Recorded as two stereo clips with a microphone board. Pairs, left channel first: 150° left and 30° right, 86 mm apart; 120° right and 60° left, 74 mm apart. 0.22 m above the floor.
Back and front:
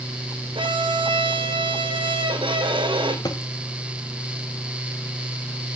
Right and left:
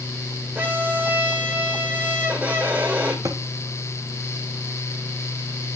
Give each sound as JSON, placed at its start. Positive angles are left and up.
{"t": 0.6, "sound": "a violin", "azimuth_deg": -5, "distance_m": 2.5}
{"t": 3.2, "sound": "a thud", "azimuth_deg": 105, "distance_m": 2.5}